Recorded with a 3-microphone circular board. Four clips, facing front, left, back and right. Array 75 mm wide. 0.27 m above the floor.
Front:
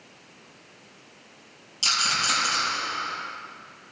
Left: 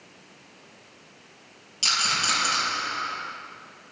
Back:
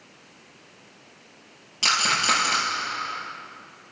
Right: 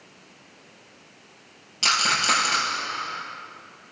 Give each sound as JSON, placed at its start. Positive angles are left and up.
{"t": 1.8, "sound": "a rattle", "azimuth_deg": -145, "distance_m": 5.5}